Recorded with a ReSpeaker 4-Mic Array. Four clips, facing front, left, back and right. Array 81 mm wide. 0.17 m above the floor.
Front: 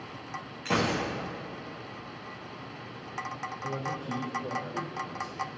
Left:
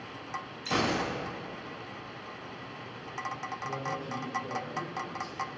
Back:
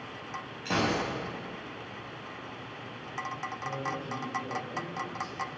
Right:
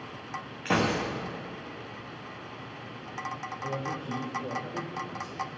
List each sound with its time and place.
0.7 s a gunshot: 80° right, 5.5 m
3.6 s a man speaking: 70° right, 3.5 m